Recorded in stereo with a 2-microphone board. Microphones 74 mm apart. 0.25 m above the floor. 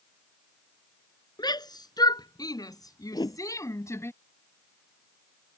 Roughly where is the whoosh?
Left.